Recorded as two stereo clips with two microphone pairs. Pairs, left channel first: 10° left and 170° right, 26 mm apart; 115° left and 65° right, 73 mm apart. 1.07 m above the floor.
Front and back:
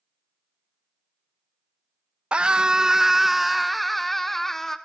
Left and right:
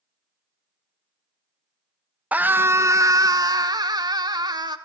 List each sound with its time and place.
2.3 s a scream: 130° right, 1.2 m; by 4.8 s 65° right, 2.5 m